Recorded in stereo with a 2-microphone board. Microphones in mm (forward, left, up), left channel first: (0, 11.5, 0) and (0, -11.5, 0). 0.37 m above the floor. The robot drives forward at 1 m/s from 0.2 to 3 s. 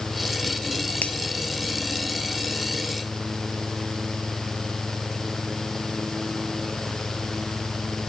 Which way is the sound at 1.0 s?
85° left.